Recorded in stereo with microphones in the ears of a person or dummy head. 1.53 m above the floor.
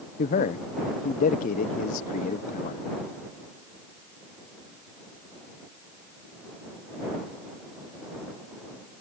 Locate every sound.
0.2 s a man speaking: 45° left (ahead or behind)